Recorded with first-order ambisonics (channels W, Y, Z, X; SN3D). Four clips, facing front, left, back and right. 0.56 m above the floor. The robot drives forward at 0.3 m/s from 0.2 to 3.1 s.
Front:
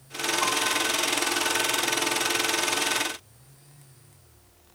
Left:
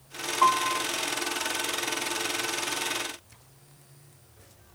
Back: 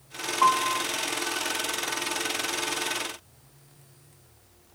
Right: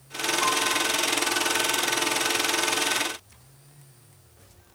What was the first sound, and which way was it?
A piano, 135° left.